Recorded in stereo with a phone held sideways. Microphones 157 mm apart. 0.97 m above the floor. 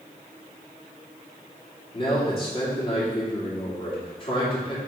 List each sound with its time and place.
1.9 s a man speaking: 30° left (ahead or behind), 2.5 m